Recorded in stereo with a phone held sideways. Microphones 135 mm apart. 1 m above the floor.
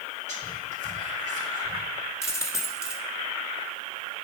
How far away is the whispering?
About 1.8 m.